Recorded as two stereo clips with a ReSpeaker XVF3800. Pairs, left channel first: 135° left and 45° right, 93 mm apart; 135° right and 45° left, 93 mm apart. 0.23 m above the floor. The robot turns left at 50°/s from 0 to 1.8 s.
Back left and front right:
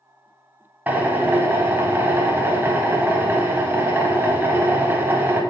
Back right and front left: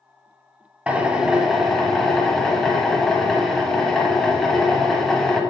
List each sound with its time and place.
0.9 s a drill: 5° right, 0.5 m; by 5.4 s 55° right, 0.5 m